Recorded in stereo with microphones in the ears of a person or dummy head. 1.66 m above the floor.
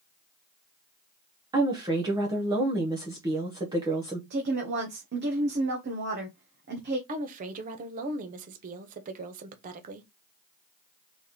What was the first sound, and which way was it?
A woman speaking, 15° right (ahead or behind).